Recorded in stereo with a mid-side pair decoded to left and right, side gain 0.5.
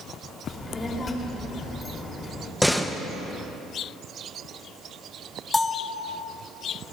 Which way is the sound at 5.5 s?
20° left.